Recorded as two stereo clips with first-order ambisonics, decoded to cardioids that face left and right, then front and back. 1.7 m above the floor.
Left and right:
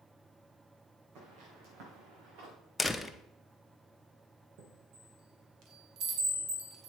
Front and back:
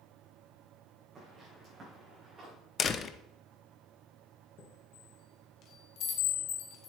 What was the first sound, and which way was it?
Footsteps, 105° right.